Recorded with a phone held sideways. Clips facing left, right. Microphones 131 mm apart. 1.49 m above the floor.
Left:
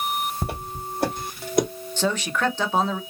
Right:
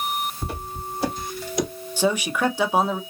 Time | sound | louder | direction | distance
0.4 | footsteps | left 1 dB | 65° left (ahead or behind) | 3 m
2.0 | a man speaking | right 2 dB | 10° right (ahead or behind) | 0.8 m